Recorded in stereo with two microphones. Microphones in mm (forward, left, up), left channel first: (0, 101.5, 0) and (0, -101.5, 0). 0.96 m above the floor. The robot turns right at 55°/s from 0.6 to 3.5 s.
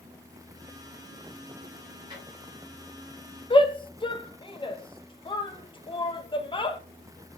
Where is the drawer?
25° right (ahead or behind), 3 m; by 2.2 s 15° right (ahead or behind), 3 m.